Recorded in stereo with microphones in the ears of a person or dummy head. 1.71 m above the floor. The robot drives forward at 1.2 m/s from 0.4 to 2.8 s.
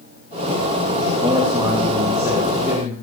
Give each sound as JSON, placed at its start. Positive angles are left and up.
{"t": 1.2, "sound": "a man speaking", "side_deg": -10, "distance_m": 3.5}